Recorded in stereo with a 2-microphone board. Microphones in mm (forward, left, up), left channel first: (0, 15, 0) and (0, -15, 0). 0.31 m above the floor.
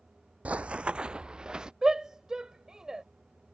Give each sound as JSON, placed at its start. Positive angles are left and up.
{"t": 0.5, "sound": "running footsteps", "side_deg": -55}
{"t": 1.8, "sound": "a shout", "side_deg": -25}